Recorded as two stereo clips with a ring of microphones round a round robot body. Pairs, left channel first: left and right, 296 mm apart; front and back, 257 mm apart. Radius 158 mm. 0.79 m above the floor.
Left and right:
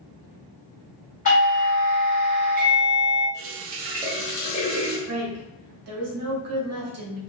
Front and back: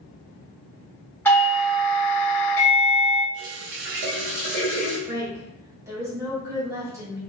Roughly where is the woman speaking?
Right.